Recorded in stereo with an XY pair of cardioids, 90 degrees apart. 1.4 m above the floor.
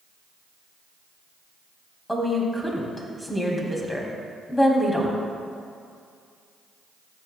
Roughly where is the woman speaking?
Ahead.